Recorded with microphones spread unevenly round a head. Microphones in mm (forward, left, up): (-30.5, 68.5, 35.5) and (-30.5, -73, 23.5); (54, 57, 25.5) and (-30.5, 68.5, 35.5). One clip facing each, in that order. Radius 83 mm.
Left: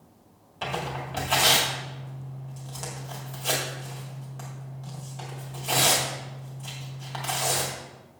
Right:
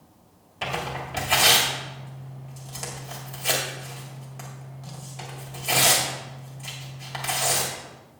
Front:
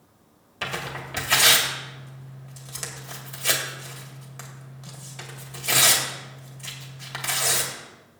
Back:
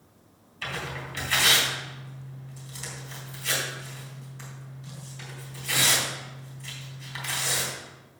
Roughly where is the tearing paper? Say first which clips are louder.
Right 1 dB, front 3 dB; ahead.